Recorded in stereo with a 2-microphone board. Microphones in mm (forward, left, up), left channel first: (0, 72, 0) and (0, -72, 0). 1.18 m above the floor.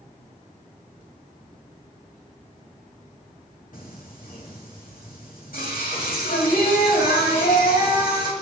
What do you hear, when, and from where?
3.7 s singing: 75° left (ahead or behind), 2.5 m